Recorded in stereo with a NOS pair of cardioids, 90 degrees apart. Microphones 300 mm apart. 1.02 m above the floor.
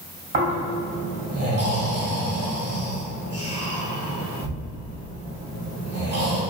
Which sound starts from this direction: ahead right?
Snoring, at 0.3 s.